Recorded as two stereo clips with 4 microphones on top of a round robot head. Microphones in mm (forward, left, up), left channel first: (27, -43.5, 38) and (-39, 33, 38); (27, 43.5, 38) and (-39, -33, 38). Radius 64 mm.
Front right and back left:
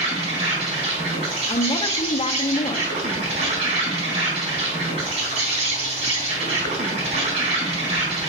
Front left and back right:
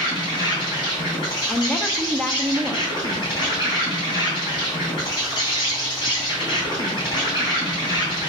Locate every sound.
0.0 s an insect: 95° left, 3.5 m
1.5 s a woman speaking: 30° right, 0.8 m